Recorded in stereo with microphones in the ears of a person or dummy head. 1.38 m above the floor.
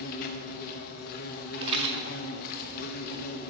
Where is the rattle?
25° right (ahead or behind), 0.5 m.